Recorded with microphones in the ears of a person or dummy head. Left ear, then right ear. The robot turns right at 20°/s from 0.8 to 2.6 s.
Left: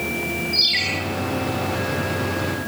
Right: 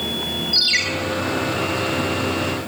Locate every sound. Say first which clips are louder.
0.5 s a ringtone: right 2 dB; 45° right (ahead or behind), 5 m; by 0.8 s 50° right (ahead or behind), 5 m